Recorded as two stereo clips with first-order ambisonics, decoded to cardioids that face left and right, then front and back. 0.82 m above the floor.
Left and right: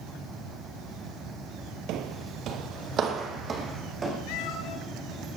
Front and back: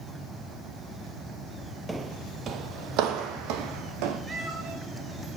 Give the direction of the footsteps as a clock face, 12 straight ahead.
3 o'clock.